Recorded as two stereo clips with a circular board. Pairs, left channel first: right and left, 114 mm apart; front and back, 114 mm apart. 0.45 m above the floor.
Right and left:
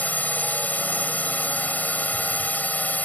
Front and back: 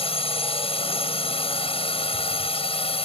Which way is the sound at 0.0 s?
15° right.